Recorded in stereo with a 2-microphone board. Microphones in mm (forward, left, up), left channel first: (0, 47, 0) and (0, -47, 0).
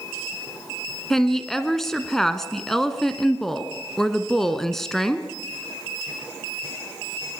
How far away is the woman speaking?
About 1.3 m.